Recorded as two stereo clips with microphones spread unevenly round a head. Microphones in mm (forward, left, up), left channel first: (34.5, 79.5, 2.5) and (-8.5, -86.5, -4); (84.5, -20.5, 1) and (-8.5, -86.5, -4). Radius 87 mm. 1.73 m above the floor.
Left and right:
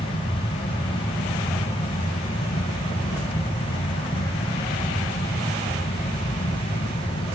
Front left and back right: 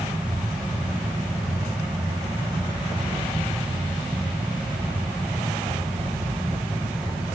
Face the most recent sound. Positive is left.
turn(degrees=135)